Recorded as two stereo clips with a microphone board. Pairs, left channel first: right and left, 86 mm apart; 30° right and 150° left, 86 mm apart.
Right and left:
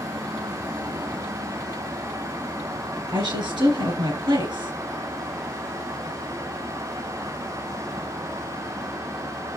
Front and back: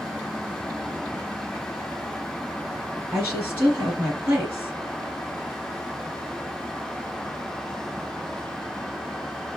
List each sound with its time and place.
3.1 s a woman speaking: 90° left, 3 m